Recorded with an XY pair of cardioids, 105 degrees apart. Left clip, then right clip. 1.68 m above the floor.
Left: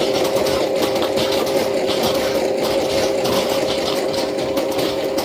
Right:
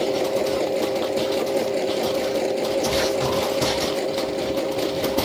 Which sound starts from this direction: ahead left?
A machine running, at 0.0 s.